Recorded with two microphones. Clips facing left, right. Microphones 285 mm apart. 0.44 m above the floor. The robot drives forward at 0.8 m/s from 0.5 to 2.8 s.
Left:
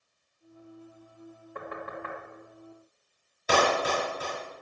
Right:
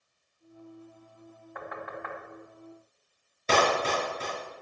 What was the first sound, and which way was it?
Knocking, 35° left (ahead or behind).